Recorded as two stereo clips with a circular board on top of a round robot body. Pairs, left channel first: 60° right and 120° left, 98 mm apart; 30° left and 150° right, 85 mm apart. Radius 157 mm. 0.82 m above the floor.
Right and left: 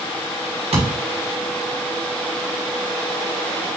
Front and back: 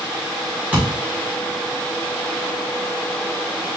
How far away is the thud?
About 1.7 m.